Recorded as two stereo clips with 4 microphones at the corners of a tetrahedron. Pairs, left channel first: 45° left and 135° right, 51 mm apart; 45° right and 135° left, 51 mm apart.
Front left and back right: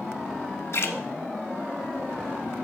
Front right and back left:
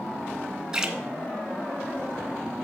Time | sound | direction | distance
0.7 | a splash | 60° left | 1.0 m